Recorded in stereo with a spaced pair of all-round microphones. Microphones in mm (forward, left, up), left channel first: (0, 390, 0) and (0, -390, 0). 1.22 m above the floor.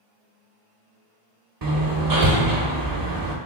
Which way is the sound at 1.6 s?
30° right (ahead or behind).